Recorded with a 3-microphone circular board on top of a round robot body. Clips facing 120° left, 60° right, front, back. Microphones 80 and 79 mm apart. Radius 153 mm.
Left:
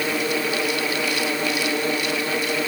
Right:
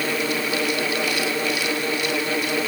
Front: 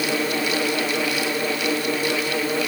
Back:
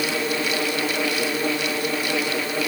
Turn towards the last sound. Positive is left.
No sound to turn to.